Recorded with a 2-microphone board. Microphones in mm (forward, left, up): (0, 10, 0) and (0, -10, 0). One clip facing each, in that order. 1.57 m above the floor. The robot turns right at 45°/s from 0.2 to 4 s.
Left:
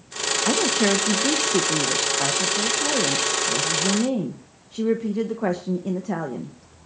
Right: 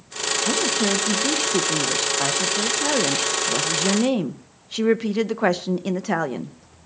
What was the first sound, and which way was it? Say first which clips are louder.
A woman speaking: left 2 dB; 115° left.